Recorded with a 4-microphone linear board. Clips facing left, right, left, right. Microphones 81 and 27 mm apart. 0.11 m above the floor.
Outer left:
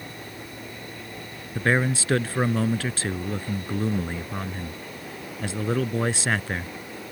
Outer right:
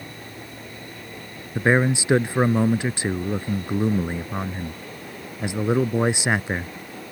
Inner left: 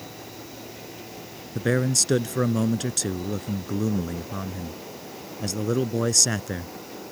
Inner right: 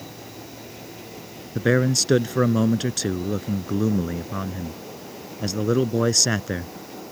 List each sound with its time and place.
1.6 s a man speaking: 20° right (ahead or behind)